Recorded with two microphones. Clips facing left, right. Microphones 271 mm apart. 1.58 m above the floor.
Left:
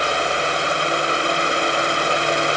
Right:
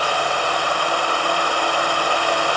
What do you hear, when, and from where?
Only background noise.